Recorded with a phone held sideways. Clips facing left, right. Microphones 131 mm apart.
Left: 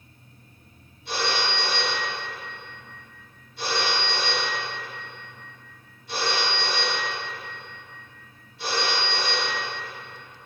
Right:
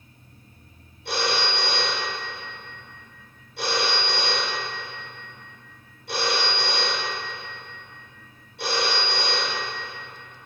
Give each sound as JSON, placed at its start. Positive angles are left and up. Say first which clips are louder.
{"t": 1.1, "sound": "a phone ringing", "louder": "right 1 dB", "side_deg": -75, "distance_m": 1.7}